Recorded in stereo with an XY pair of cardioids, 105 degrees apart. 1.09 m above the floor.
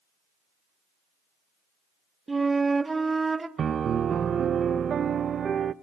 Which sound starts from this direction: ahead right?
A piano, at 3.6 s.